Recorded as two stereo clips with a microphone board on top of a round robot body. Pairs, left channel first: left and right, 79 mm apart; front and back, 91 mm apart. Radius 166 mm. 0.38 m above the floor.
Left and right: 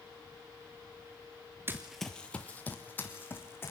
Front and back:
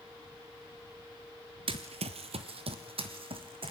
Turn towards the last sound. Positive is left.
turn(degrees=155)